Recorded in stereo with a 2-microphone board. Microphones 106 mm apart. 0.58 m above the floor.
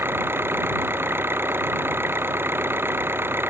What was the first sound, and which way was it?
An engine running, 20° right (ahead or behind).